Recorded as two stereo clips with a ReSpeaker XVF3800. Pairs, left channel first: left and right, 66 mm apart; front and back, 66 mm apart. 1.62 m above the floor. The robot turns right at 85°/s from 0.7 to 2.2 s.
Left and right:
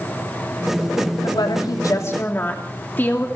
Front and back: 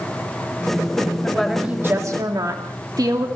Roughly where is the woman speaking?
Left.